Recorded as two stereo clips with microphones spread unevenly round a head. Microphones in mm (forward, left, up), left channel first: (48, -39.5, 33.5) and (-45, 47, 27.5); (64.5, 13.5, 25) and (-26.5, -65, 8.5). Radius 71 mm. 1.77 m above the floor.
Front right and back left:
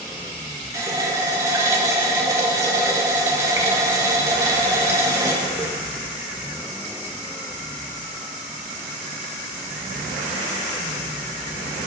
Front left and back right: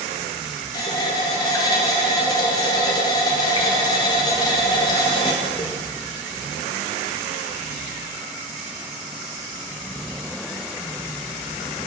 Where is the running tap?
75° left, 1.0 m.